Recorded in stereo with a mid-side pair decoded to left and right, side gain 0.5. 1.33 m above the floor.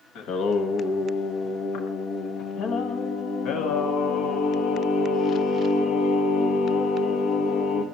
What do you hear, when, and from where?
0.1 s singing: 65° left, 1.1 m